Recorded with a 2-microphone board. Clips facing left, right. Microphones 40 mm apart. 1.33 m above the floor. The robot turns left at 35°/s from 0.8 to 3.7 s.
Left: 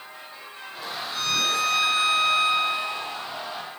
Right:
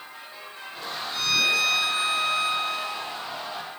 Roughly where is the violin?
Behind left.